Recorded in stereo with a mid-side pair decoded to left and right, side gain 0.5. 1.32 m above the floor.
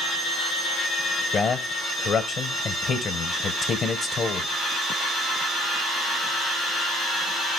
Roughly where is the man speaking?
Ahead left.